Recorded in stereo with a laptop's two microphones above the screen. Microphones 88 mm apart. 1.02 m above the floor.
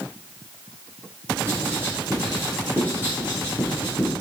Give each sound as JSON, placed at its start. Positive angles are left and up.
{"t": 1.5, "sound": "writing", "side_deg": -25, "distance_m": 7.0}